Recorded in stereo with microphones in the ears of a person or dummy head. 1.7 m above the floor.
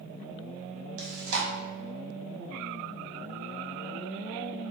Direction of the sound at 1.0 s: 80° right.